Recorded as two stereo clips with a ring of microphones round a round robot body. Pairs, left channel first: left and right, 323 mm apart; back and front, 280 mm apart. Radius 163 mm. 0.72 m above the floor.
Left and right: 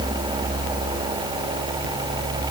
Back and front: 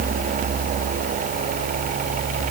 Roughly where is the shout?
I don't hear a shout.